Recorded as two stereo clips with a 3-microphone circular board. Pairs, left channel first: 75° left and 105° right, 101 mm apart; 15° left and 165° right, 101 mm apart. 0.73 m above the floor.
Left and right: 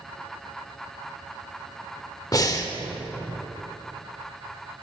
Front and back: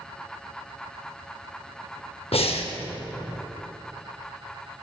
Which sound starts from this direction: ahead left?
Breathing, at 2.3 s.